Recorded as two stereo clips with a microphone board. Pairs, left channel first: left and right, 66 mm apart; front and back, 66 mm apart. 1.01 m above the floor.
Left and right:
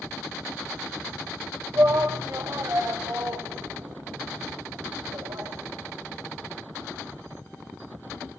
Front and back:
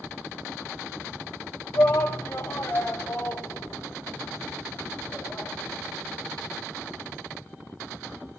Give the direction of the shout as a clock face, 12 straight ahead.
2 o'clock.